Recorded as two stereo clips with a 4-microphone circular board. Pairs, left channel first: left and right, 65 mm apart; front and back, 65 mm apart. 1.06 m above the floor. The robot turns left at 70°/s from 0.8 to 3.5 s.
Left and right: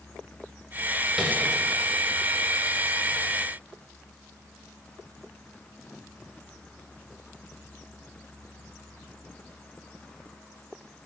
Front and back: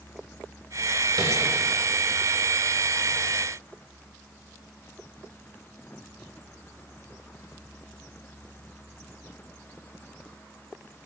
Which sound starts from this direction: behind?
Tapping, at 1.2 s.